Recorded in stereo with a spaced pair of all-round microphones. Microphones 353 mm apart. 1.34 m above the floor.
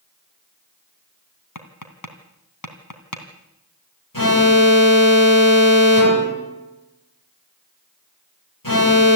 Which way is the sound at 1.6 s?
55° left (ahead or behind).